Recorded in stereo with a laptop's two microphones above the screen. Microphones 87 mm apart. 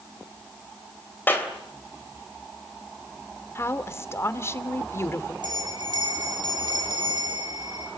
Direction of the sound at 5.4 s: 55° right (ahead or behind).